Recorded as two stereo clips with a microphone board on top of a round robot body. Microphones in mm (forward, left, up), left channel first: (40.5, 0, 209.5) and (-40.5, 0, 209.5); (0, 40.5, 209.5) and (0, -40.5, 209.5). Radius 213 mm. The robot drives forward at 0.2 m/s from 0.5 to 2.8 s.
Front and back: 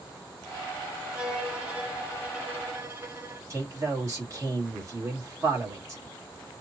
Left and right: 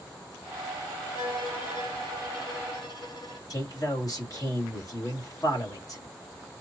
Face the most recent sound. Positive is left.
turn(degrees=130)